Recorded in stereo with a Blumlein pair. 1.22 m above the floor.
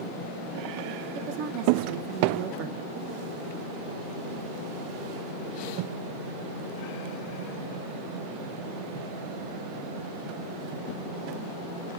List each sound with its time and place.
1.1 s a woman speaking: 40° right, 1.0 m